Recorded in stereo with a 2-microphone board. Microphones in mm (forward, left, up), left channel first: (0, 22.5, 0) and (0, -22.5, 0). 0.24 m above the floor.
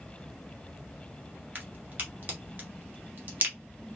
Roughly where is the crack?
Right.